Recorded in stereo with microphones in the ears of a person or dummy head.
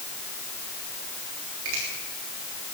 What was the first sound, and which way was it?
A finger snap, 65° right (ahead or behind).